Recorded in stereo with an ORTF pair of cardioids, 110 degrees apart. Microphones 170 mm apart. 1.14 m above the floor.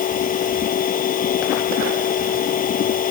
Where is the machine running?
55° left.